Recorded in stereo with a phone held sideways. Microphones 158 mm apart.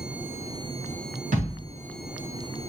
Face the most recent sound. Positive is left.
turn(degrees=-55)  # may be behind; listen again after turning